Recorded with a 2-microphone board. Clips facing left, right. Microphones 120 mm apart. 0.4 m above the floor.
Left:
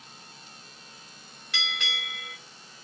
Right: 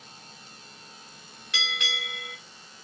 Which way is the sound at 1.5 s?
Centre (ahead or behind).